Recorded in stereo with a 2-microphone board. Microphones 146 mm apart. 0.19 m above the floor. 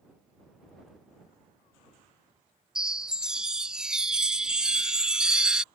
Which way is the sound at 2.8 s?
5° right (ahead or behind).